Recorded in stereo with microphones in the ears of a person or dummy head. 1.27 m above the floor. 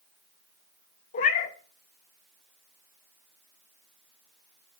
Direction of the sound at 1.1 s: 40° left (ahead or behind).